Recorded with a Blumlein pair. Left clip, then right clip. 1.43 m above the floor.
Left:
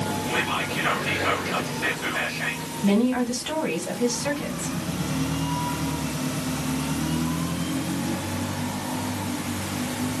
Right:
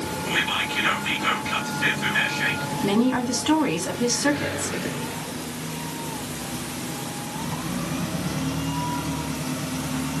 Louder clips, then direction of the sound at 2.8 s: Even; 15° right.